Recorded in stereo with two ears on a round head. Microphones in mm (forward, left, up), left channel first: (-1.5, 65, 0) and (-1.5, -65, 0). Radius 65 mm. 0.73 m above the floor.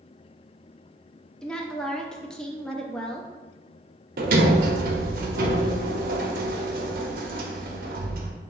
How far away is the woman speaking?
About 0.5 m.